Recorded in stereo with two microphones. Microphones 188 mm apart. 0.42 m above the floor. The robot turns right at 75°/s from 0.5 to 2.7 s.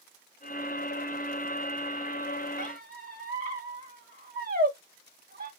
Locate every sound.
2.6 s a squeak: 45° right (ahead or behind), 0.8 m; by 5.5 s 50° right (ahead or behind), 0.8 m